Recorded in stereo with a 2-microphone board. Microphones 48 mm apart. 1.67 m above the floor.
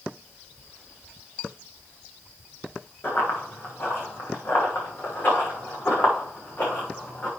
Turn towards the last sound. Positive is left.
turn(degrees=25)  # may be behind; listen again after turning